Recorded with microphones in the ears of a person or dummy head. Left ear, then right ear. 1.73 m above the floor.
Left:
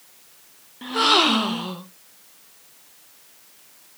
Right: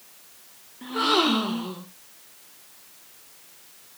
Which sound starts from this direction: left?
A gasp, at 0.8 s.